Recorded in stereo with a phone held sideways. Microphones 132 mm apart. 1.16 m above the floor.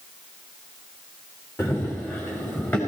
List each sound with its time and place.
1.6 s running footsteps: 20° left (ahead or behind), 4.5 m; by 2.8 s 15° left (ahead or behind), 5 m